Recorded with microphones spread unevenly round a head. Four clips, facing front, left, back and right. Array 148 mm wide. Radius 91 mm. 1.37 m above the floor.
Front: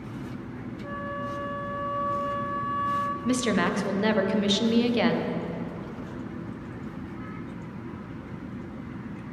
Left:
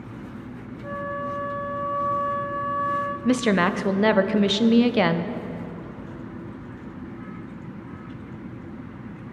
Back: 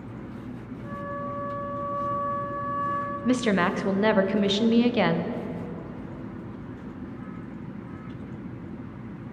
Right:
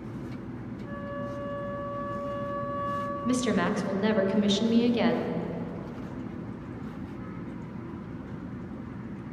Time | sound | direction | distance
0.8 | a flute | 65° left | 0.9 m
3.2 | a woman speaking | 85° left | 0.6 m